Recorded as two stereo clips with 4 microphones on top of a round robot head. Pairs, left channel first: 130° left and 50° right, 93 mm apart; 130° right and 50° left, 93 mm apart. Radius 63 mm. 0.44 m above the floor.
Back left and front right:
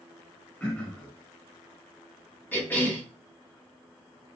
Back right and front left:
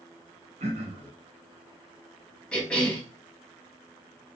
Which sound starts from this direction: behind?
A cough, at 2.5 s.